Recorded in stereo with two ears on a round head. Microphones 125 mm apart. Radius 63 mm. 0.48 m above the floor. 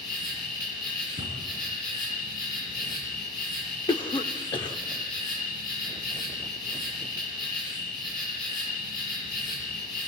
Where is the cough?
30° left (ahead or behind), 0.9 m.